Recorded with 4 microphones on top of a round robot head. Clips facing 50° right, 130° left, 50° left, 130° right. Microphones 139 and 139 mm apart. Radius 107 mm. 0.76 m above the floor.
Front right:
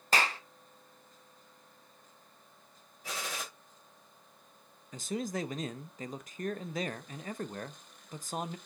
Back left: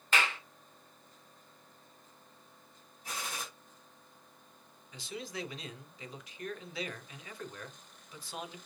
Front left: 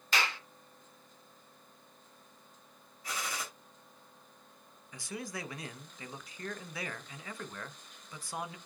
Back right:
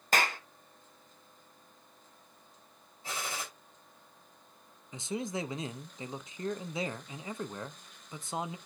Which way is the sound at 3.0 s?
65° right.